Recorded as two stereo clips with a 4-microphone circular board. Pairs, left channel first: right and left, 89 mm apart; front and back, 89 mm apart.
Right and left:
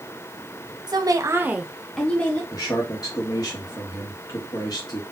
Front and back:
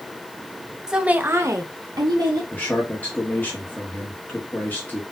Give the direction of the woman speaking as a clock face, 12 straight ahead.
9 o'clock.